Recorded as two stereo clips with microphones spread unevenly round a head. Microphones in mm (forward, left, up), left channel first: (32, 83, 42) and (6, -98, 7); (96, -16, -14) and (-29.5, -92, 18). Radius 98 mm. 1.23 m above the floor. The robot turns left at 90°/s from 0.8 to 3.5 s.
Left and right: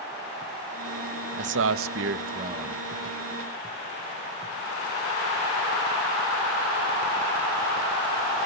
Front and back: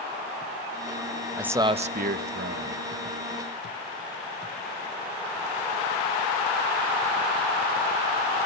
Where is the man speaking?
65° right, 1.1 m; by 2.8 s 170° left, 1.1 m.